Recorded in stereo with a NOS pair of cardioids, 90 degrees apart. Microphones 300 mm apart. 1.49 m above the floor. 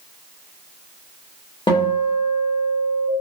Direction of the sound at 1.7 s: 15° left.